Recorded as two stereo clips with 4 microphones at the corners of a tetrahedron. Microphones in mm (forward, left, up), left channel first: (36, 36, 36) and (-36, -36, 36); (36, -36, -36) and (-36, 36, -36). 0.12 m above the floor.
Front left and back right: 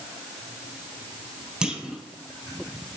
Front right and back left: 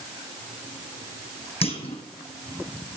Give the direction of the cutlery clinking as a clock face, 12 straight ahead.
No cutlery clinking in this recording.